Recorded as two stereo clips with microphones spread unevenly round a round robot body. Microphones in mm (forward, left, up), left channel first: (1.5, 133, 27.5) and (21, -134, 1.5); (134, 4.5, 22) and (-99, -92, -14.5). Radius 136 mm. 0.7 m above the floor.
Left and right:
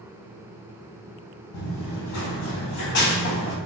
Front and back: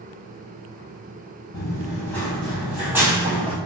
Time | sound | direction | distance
1.5 | running footsteps | 95° left | 1.7 m